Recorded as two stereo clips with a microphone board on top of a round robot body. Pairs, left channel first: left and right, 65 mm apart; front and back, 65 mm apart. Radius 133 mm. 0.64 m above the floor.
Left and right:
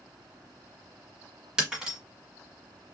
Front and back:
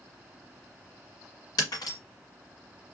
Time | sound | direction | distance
1.6 | breaking glass | 10° right | 1.1 m